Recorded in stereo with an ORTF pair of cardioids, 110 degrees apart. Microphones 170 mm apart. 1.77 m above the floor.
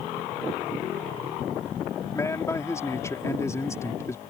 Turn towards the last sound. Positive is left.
turn(degrees=15)